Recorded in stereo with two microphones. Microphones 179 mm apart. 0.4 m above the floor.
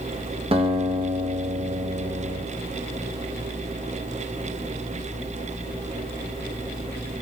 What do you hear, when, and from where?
0.5 s a guitar: 30° right (ahead or behind), 1.5 m